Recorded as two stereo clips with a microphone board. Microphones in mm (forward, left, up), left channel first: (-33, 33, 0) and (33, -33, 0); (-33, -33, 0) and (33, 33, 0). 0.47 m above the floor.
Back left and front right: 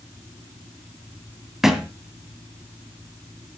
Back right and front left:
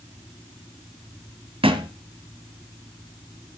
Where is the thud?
40° left, 1.8 m.